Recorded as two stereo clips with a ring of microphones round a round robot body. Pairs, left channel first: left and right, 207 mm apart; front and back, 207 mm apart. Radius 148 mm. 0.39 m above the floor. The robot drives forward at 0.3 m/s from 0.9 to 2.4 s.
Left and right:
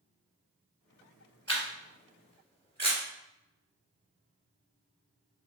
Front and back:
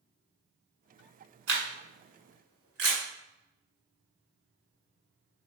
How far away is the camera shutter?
About 1.5 m.